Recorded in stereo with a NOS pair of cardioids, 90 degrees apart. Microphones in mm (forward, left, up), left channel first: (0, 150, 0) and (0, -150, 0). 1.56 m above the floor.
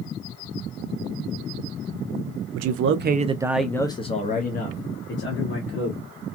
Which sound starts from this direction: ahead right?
A man speaking, at 2.5 s.